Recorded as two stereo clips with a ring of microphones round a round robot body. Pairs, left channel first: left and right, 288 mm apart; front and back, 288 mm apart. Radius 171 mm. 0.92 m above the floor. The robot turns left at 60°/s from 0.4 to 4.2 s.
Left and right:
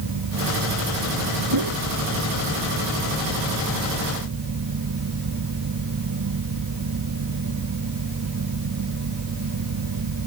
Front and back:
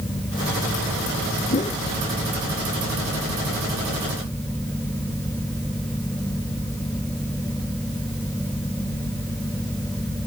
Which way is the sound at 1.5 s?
60° right.